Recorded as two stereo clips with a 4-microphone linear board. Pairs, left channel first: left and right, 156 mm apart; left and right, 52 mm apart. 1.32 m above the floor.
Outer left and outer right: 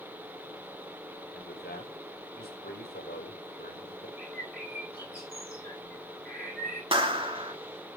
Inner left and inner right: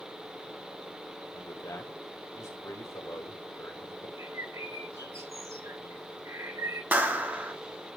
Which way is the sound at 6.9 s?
35° right (ahead or behind).